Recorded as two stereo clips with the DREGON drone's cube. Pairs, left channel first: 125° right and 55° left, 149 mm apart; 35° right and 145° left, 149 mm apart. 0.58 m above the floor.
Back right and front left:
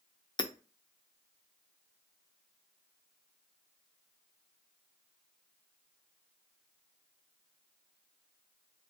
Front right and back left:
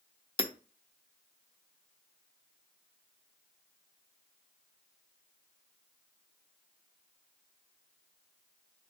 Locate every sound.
0.4 s hammering: 75° right, 0.5 m